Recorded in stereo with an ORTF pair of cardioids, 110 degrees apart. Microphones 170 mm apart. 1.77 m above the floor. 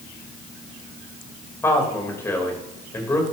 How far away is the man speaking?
About 3 m.